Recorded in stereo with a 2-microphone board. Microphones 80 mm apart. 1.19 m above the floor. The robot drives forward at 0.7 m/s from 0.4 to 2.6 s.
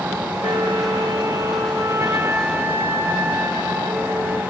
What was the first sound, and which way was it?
A flute, 60° right (ahead or behind).